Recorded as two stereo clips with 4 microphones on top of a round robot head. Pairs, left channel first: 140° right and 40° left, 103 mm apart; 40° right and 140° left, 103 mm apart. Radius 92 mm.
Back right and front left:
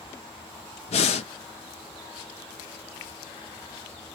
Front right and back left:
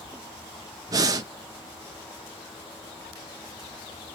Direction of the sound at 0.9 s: 165° right.